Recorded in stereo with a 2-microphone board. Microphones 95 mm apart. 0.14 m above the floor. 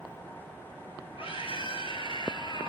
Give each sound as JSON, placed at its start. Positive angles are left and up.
{"t": 1.2, "sound": "a scream", "side_deg": 70, "distance_m": 4.5}